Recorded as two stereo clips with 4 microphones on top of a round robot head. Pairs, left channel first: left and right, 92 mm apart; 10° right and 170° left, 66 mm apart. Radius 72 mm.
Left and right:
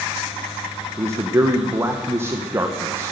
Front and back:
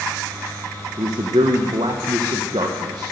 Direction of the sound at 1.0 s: 155° right.